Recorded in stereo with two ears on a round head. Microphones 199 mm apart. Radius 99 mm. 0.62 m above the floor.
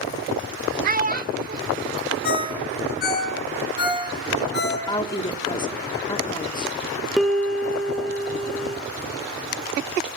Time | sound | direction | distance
0.8 | a child speaking | 40° right (ahead or behind) | 1.0 m
2.2 | a ringtone | 50° left (ahead or behind) | 5.5 m
4.9 | a woman speaking | 20° left (ahead or behind) | 1.6 m
7.2 | a piano | centre (ahead or behind) | 1.8 m